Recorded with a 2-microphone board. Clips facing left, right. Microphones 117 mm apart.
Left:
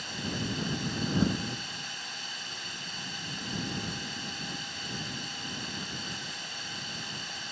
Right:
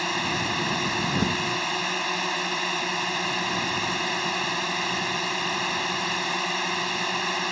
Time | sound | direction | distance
0.0 | a drone | 70° right (ahead or behind) | ?